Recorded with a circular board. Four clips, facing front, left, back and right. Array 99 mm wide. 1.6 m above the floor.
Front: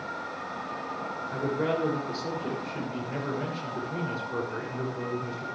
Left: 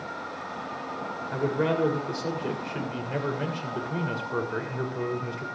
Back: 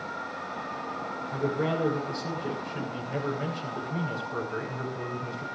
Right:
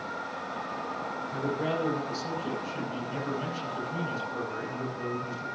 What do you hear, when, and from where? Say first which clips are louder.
1.3 s a man speaking: left 5 dB, even; 85° left, 7 m